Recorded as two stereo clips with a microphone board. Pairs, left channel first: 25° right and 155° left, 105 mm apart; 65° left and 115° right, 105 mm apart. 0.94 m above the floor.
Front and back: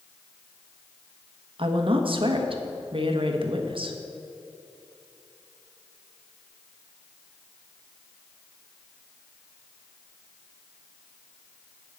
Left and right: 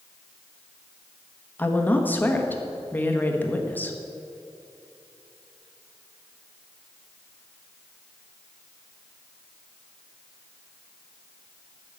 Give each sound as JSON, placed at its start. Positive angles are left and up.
{"t": 1.6, "sound": "a woman speaking", "azimuth_deg": 140, "distance_m": 1.2}